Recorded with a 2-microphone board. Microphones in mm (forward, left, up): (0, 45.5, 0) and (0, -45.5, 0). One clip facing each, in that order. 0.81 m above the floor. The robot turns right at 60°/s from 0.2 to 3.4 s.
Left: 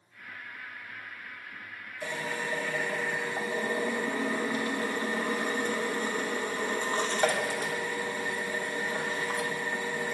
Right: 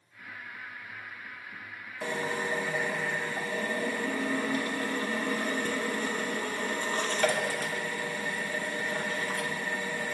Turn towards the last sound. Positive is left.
turn(degrees=25)